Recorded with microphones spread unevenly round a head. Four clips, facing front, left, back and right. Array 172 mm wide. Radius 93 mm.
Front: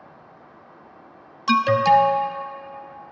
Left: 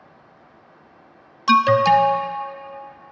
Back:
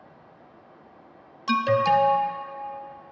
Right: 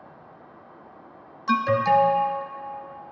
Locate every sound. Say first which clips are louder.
1.5 s an alarm: left 6 dB, front 4 dB; 40° left, 0.5 m